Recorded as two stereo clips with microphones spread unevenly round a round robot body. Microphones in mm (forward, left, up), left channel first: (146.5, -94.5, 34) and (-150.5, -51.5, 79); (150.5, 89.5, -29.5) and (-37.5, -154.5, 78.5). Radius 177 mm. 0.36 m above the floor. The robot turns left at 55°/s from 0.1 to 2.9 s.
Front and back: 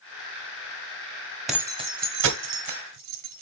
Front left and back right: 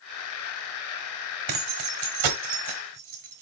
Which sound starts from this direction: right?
Keys jangling, at 1.5 s.